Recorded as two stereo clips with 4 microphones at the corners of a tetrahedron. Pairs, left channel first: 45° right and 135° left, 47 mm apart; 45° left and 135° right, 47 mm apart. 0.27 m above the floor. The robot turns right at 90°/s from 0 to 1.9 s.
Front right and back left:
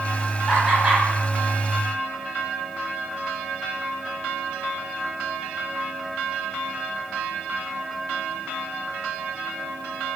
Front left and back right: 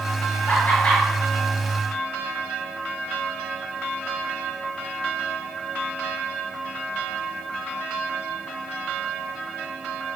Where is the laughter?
45° left, 1.2 m; by 1.0 s 90° left, 1.2 m.